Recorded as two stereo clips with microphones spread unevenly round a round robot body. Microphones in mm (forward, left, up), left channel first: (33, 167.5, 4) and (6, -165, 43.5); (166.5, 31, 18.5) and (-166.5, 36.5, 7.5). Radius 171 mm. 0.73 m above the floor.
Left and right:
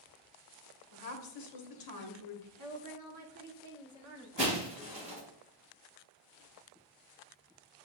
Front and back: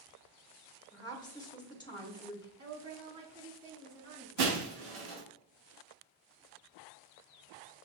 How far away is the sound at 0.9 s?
About 1.5 m.